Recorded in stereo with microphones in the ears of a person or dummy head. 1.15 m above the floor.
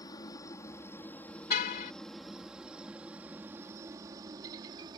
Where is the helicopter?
20° left (ahead or behind); by 5.0 s 25° right (ahead or behind).